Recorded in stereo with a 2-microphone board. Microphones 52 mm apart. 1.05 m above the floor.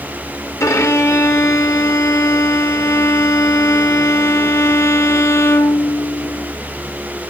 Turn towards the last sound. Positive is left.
turn(degrees=75)  # may be behind; listen again after turning